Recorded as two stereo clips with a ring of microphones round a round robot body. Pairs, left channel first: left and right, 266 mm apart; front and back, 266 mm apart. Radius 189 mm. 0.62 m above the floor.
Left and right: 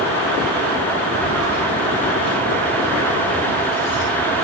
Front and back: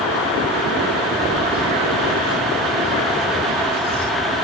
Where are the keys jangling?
95° right, 5.5 m; by 4.0 s 100° right, 6.5 m.